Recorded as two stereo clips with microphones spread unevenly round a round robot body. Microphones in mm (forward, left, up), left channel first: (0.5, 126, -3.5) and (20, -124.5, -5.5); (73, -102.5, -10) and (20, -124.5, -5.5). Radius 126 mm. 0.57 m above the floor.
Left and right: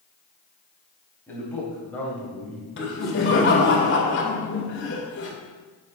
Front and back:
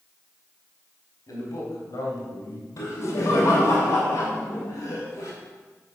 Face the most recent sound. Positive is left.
turn(degrees=55)